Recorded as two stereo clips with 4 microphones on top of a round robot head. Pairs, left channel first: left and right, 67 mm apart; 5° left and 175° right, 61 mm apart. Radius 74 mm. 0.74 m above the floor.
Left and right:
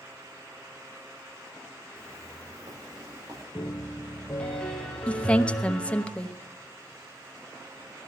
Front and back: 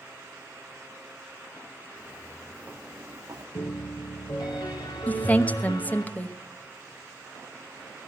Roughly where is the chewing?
No chewing in this recording.